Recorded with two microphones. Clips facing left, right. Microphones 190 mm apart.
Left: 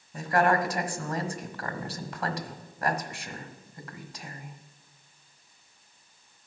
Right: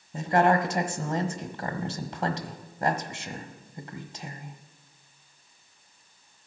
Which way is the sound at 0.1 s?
25° right (ahead or behind).